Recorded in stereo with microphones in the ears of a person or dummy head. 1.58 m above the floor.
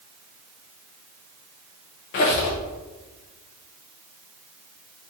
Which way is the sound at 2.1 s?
50° left (ahead or behind).